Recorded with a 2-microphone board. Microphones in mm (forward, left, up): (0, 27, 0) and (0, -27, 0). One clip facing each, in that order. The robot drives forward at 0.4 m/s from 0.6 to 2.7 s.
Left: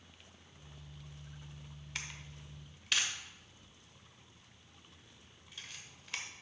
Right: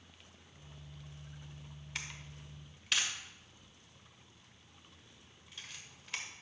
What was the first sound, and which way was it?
A camera shutter, centre (ahead or behind).